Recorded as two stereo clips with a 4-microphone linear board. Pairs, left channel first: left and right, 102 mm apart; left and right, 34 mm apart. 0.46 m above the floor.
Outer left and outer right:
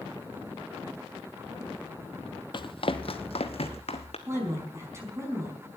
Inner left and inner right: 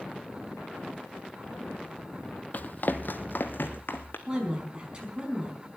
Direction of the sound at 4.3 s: 25° right (ahead or behind).